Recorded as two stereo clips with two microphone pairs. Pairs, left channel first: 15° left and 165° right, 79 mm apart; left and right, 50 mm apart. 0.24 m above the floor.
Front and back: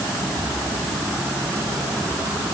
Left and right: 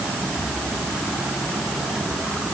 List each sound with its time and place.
Only background noise.